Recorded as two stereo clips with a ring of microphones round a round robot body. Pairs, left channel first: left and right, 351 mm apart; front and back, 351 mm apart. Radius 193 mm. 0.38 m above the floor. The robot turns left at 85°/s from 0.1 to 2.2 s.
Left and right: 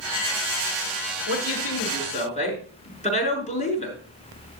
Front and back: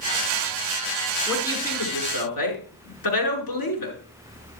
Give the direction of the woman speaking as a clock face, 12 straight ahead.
9 o'clock.